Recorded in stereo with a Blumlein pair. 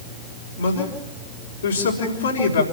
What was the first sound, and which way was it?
A man speaking, 70° left.